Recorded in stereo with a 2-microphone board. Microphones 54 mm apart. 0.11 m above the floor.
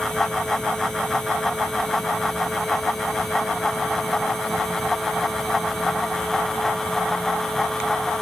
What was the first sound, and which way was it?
Only background noise.